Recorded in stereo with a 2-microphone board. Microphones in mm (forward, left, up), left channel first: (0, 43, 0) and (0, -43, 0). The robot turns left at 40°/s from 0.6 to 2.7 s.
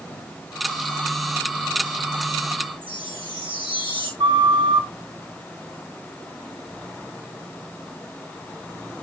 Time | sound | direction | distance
2.8 | a chime | 80° right | 8 m
4.2 | a flute | 80° right | 4 m